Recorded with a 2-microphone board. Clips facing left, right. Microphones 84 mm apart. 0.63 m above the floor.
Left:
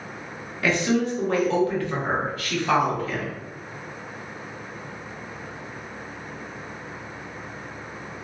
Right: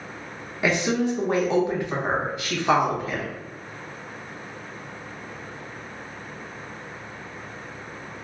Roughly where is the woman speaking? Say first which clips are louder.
Even; centre.